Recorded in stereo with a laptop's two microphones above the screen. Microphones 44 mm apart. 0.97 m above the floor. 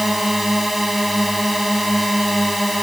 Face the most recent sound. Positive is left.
turn(degrees=0)  # may be behind; listen again after turning